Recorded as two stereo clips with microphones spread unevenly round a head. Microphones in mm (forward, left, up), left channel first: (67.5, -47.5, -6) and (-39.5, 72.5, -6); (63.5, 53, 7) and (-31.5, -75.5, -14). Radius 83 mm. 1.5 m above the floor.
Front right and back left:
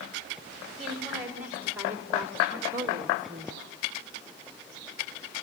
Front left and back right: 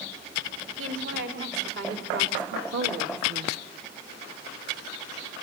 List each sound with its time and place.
0.8 s a woman speaking: 145° right, 6 m; by 3.6 s 165° right, 1.9 m